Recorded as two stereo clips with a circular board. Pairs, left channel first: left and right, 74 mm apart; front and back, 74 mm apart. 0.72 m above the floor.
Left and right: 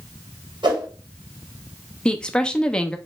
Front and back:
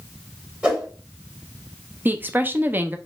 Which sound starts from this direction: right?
A whoosh, at 0.6 s.